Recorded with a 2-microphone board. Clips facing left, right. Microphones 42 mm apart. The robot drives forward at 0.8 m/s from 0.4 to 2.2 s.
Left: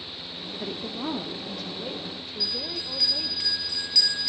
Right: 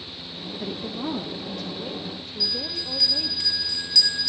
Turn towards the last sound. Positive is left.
turn(degrees=15)  # may be behind; listen again after turning